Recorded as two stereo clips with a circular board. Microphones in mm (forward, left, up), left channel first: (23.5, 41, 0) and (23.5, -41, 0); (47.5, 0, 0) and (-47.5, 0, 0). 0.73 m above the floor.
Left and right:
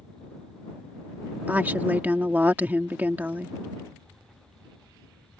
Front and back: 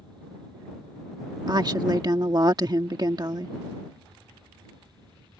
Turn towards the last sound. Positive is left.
turn(degrees=-150)